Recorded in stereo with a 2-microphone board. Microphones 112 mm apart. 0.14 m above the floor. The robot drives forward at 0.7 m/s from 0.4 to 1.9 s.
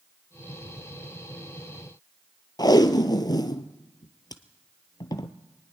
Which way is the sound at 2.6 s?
40° left (ahead or behind).